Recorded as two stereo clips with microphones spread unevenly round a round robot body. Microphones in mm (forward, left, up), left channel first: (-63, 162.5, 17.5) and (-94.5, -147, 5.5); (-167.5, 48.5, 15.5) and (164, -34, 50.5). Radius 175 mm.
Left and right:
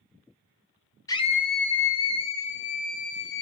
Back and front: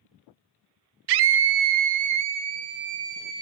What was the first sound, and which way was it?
A scream, 5° left.